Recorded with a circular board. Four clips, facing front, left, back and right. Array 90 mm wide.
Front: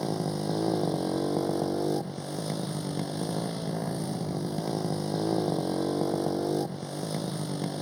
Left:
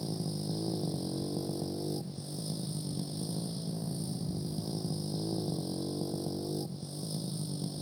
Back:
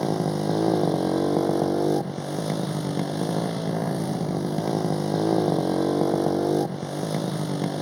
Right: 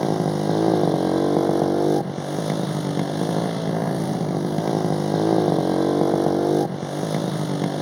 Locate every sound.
0.0 s a motorcycle: 110° right